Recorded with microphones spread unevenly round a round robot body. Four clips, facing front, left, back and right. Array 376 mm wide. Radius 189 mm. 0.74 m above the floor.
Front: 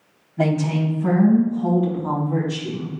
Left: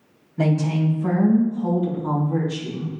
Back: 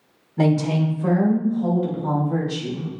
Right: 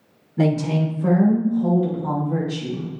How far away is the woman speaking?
About 2.5 m.